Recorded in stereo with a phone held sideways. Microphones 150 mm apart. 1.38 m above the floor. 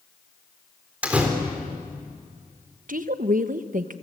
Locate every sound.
1.0 s a door slam: 10° right (ahead or behind), 4 m
2.9 s a woman speaking: 65° right (ahead or behind), 1.1 m